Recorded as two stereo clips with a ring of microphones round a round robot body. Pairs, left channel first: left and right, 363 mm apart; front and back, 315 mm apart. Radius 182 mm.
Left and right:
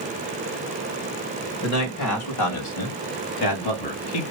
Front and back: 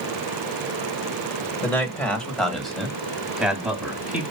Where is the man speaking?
80° left, 2 m; by 4.2 s 95° left, 3 m.